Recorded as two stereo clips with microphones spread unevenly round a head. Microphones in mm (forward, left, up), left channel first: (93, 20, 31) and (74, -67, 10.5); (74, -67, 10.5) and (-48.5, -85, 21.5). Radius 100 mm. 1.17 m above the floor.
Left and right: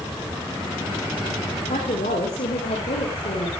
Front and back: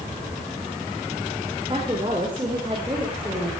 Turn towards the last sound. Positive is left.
turn(degrees=115)